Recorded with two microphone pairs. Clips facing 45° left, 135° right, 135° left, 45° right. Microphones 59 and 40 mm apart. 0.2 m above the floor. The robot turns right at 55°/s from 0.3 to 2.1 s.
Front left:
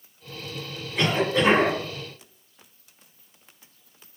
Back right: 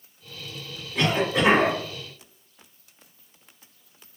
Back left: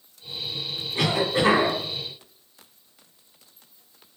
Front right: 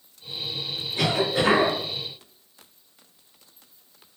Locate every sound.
0.9 s a cough: 135° left, 1.4 m; by 1.8 s straight behind, 1.4 m